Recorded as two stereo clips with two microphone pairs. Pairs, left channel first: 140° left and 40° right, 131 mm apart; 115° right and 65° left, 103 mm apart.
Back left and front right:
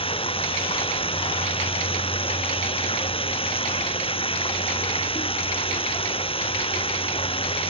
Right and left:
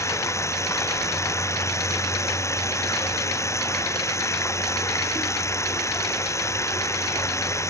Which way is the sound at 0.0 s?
175° right.